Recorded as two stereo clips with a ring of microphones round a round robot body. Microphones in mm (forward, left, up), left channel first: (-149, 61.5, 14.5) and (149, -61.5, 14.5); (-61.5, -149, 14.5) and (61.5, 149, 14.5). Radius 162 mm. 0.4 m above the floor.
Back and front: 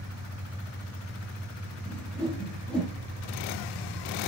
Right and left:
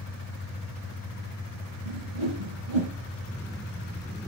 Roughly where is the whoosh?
Left.